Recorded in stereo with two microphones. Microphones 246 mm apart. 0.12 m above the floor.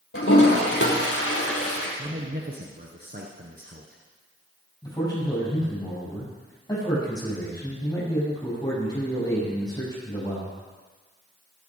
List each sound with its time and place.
0.1 s a toilet flushing: 65° left (ahead or behind), 3.5 m
2.0 s a man speaking: 40° right (ahead or behind), 1.4 m
4.8 s a man speaking: 15° left (ahead or behind), 7 m